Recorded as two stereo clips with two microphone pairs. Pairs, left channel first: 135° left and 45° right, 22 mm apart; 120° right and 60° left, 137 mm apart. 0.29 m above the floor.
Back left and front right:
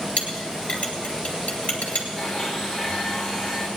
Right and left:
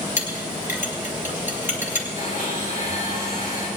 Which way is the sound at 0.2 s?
130° left.